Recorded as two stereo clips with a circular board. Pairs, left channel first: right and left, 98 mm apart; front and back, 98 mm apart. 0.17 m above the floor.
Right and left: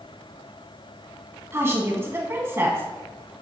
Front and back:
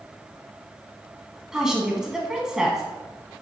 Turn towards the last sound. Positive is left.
turn(degrees=105)